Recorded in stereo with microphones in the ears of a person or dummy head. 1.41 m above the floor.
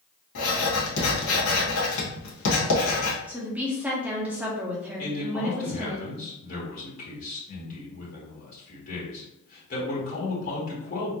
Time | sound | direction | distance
0.3 | writing | 80° left | 1.2 m
3.3 | a woman speaking | 15° right (ahead or behind) | 0.9 m
5.0 | a man speaking | 60° left (ahead or behind) | 1.5 m